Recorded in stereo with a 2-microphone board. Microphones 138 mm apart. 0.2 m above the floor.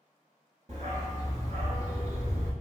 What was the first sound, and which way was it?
A dog barking, 60° right (ahead or behind).